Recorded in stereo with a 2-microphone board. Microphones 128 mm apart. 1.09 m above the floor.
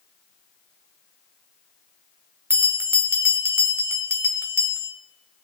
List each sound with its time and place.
2.5 s a bell: 20° right (ahead or behind), 1.2 m